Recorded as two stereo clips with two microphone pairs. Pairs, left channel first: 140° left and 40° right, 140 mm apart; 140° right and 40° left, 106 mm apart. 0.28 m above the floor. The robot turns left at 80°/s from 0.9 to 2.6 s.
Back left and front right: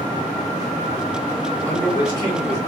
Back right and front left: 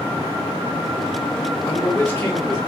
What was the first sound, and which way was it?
A man speaking, 155° right.